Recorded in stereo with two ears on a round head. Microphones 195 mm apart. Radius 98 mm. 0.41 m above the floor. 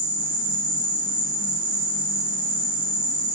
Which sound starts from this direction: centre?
An insect, at 0.0 s.